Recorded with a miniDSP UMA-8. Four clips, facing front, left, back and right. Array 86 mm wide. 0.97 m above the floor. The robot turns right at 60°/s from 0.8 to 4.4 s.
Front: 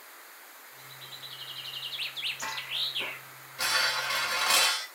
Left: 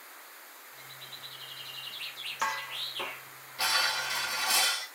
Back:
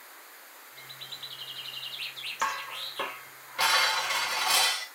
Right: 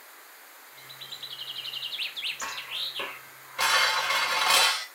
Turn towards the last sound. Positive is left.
turn(degrees=-85)